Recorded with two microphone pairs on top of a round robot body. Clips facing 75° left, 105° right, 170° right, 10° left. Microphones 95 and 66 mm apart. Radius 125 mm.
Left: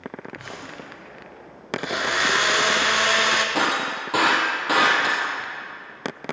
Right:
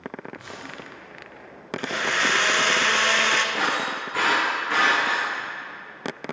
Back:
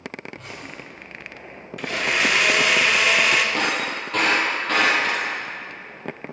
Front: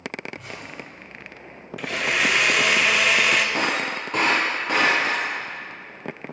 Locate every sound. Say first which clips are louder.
0.3 s a zipper: left 1 dB, front 1 dB; 95° left, 3.5 m
1.8 s a blender: left 1 dB, back 1 dB; 105° left, 1.3 m
3.5 s breaking glass: left 2 dB, even; 80° left, 2.5 m